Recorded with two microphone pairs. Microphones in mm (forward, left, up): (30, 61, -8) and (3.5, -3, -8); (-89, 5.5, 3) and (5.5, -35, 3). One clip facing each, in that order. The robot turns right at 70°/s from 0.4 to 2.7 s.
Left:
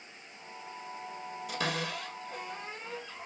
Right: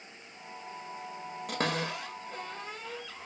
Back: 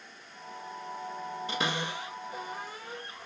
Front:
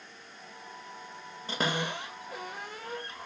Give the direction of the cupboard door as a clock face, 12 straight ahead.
3 o'clock.